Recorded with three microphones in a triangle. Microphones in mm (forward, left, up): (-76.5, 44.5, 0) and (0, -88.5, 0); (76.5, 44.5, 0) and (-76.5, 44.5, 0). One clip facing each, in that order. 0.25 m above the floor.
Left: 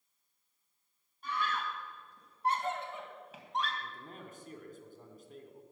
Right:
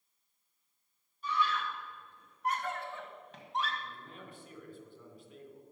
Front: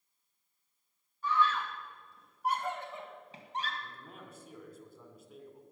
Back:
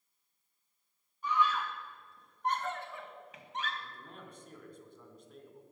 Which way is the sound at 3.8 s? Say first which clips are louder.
Left 1 dB, even; 85° left.